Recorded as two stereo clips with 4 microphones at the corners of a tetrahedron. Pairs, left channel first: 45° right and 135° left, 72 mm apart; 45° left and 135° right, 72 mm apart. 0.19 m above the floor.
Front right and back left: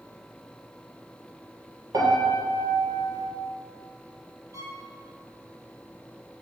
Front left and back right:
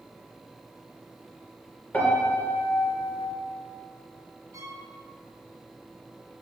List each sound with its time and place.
1.9 s a piano: 110° left, 2.5 m
4.5 s a violin: straight behind, 2.5 m